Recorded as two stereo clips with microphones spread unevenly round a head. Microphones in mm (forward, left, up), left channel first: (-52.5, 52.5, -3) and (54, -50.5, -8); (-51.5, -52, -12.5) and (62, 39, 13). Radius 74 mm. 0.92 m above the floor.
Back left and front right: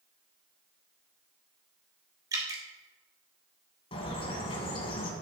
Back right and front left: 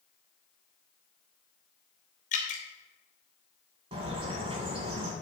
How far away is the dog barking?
I don't hear a dog barking.